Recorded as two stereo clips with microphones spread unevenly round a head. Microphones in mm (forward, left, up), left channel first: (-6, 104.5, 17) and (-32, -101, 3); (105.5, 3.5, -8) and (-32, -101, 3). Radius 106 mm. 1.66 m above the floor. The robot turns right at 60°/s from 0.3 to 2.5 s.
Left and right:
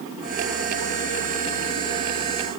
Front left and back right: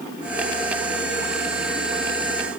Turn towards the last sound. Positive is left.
No sound to turn to.